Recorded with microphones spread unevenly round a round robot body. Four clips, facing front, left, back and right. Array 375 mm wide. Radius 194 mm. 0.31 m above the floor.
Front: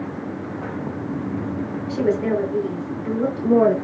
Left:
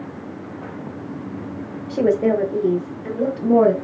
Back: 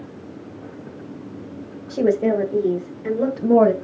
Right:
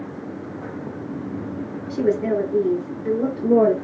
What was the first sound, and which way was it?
A woman speaking, 105° left.